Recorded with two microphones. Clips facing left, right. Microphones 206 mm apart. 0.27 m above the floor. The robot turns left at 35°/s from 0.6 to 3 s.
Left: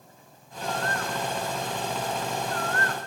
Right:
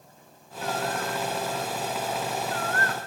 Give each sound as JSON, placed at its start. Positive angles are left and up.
{"t": 0.6, "sound": "a bird", "side_deg": 0, "distance_m": 1.0}